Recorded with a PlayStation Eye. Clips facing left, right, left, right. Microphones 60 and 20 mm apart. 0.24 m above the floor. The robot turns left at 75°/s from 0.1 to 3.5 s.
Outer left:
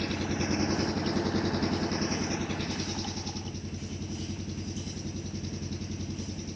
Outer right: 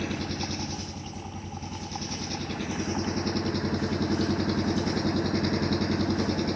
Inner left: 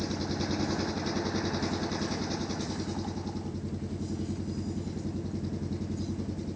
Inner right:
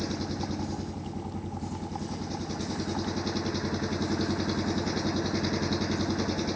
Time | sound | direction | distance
0.0 | an engine running | 175° right | ?